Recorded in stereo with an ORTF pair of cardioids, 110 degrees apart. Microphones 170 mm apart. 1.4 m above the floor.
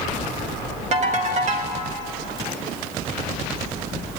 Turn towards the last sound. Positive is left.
turn(degrees=-45)